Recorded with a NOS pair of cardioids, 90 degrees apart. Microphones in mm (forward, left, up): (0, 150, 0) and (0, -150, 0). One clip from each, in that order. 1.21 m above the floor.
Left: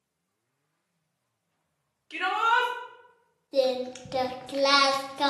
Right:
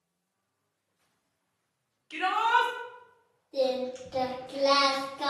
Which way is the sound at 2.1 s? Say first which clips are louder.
Left 1 dB; 5° right.